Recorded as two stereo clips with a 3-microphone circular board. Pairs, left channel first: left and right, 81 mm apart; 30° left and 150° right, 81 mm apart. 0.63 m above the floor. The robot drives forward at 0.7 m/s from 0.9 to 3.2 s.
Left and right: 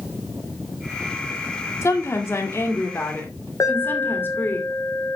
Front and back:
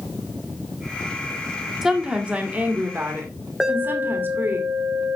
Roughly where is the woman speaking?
Behind left.